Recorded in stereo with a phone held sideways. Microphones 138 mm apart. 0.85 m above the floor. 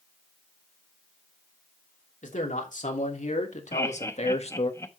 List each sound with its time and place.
2.2 s a man speaking: 70° left (ahead or behind), 3 m; by 4.7 s 50° left (ahead or behind), 1.4 m
3.7 s laughter: 20° left (ahead or behind), 1.2 m